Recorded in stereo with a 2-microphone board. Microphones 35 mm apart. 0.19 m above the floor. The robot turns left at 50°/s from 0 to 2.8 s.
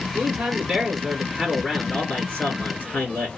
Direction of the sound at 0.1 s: 125° right.